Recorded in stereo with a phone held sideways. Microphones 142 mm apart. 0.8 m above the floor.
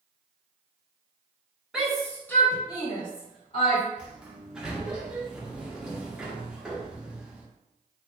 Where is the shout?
5° right (ahead or behind), 1.1 m; by 3.8 s 45° left (ahead or behind), 1.8 m.